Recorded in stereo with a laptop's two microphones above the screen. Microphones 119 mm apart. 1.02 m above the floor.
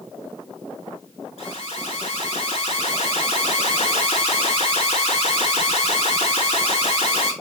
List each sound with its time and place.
1.4 s an alarm: 60° left (ahead or behind), 4 m